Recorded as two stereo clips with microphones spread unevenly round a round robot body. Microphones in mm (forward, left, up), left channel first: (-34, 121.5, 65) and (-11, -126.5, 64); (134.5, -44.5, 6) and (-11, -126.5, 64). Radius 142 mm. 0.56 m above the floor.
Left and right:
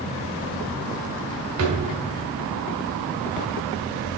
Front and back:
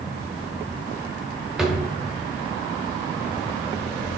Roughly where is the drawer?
Ahead right.